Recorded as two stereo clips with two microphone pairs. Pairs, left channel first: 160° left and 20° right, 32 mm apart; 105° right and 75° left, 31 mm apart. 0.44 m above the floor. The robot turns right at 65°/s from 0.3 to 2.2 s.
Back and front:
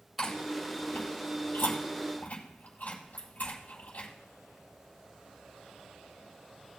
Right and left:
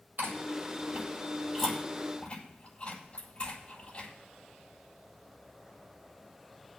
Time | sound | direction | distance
0.2 | chewing | 75° left | 7.5 m